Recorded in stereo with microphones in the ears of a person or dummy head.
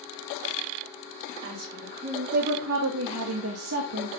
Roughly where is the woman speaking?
Right.